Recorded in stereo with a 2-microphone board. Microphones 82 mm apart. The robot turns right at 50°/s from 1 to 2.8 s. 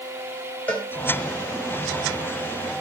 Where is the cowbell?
20° left (ahead or behind), 2 m.